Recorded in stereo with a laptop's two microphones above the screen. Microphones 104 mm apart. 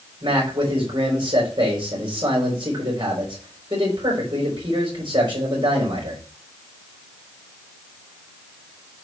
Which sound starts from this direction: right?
A man speaking, at 0.2 s.